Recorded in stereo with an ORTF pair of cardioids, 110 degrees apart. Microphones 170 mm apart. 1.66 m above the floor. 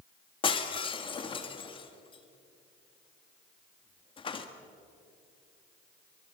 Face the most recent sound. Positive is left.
turn(degrees=30)